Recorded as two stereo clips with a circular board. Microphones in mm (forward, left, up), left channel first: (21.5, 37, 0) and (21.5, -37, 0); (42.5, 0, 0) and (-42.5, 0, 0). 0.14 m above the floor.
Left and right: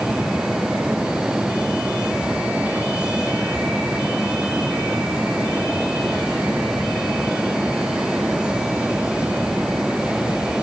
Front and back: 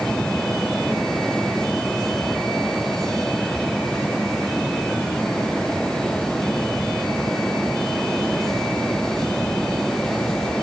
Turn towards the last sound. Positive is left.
No sound to turn to.